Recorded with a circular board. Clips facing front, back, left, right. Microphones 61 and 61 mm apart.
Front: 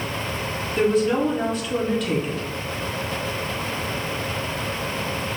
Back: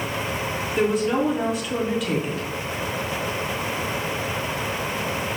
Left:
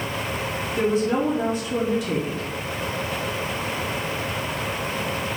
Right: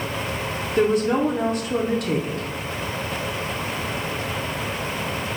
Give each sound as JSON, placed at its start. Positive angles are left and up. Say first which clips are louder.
{"t": 0.8, "sound": "a woman speaking", "louder": "front 2 dB, right 3 dB", "azimuth_deg": -95, "distance_m": 0.7}